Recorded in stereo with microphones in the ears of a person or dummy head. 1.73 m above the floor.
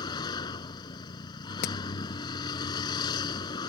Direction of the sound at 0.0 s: 30° left (ahead or behind).